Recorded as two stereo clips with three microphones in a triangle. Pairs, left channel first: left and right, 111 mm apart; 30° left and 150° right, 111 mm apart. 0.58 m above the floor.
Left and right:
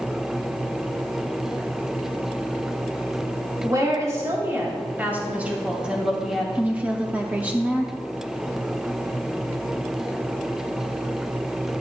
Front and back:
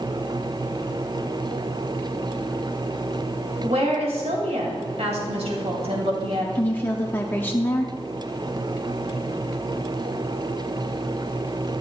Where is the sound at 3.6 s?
145° right, 3 m; by 6.5 s straight behind, 3 m.